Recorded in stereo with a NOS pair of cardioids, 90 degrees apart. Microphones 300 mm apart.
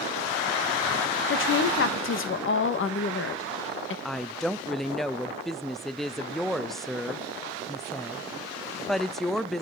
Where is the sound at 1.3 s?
45° left, 1.7 m.